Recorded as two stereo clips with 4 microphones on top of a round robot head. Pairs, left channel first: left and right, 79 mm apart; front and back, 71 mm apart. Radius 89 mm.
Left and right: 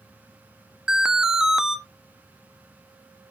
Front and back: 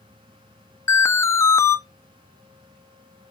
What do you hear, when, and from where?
0.9 s an alarm: 10° right, 1.0 m